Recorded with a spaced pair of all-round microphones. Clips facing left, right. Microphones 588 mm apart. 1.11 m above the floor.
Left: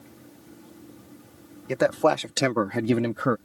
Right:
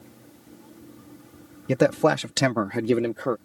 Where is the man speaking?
60° right (ahead or behind); by 3.4 s 45° left (ahead or behind).